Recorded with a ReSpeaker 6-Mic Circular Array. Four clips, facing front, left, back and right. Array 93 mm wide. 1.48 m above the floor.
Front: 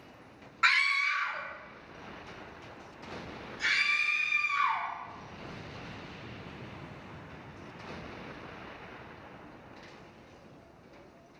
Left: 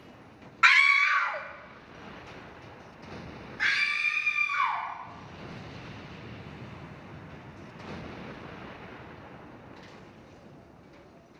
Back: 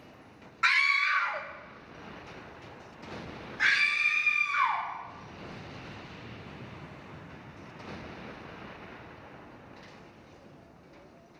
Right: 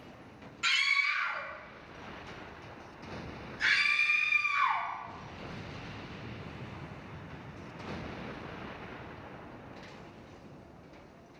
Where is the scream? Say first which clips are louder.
Left 10 dB, back 1 dB; 80° left, 0.8 m; by 4.9 s 145° left, 5.5 m.